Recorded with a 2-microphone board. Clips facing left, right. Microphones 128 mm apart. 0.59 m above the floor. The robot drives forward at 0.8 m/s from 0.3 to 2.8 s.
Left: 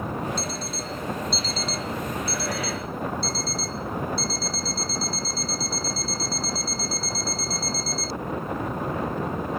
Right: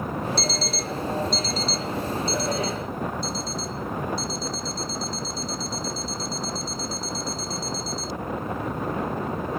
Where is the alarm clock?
75° right (ahead or behind); by 8.2 s 20° right (ahead or behind).